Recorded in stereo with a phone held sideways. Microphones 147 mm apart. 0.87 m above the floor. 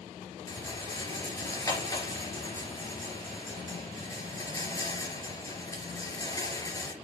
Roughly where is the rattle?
Left.